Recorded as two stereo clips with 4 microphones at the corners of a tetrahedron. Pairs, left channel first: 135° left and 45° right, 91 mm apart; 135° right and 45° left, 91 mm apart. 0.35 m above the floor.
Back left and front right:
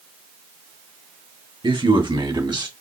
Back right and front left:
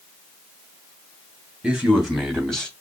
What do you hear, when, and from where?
1.6 s a man speaking: 35° right, 2.5 m; by 2.7 s 55° right, 2.5 m